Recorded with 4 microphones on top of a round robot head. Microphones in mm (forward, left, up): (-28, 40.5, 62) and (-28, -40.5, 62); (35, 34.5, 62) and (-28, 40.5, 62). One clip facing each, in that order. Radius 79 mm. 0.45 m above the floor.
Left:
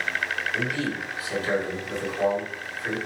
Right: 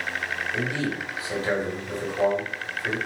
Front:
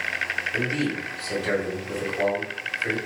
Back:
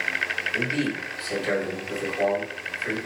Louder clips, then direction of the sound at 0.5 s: Even, even; 65° right.